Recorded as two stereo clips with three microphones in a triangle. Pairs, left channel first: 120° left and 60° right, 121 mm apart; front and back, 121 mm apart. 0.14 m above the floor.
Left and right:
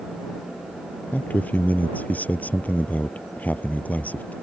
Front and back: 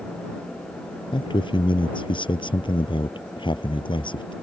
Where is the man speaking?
45° left.